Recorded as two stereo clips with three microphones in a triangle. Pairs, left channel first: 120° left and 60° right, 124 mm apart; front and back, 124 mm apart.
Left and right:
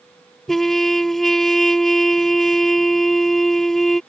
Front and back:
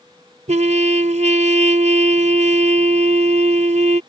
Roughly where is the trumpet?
Behind right.